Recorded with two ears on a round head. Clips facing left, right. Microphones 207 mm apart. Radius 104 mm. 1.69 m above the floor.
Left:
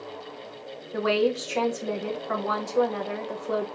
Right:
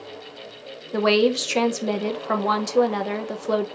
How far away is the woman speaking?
About 0.5 m.